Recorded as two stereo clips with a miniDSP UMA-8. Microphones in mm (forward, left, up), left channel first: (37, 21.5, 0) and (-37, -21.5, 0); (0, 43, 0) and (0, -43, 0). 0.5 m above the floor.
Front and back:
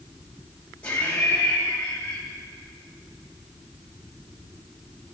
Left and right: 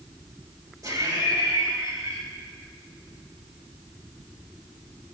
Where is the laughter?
45° right, 2.5 m.